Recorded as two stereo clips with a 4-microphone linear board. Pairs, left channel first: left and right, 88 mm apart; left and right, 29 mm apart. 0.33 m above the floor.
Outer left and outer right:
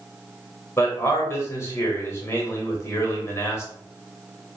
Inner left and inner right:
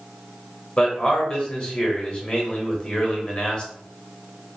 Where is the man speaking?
30° left (ahead or behind), 0.9 m.